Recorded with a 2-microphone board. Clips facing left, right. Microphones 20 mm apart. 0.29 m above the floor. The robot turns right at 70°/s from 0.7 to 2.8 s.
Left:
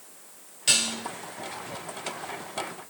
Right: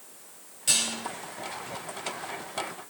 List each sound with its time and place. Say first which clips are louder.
0.7 s dishes clattering: left 3 dB; 25° left (ahead or behind), 4 m; by 0.9 s 10° left (ahead or behind), 4 m